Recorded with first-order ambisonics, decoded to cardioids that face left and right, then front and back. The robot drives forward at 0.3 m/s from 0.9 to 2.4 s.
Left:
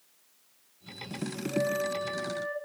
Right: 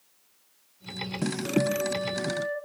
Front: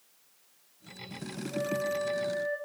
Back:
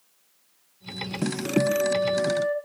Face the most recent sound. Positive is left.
turn(degrees=-170)